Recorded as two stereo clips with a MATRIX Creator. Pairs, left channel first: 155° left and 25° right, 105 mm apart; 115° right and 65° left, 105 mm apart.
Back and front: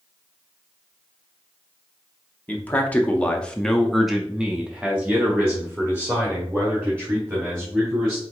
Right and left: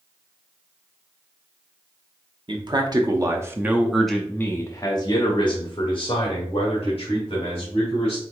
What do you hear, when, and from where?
2.5 s a man speaking: 90° left, 1.1 m; by 8.2 s 90° right, 2.5 m